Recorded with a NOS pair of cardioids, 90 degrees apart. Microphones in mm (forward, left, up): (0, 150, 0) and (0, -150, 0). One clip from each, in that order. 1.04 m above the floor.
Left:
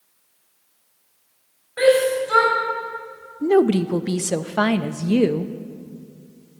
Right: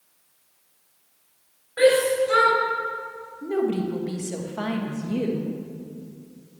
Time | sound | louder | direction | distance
1.8 | a shout | left 2 dB | 10° left | 4.5 m
3.4 | a woman speaking | left 8 dB | 55° left | 0.7 m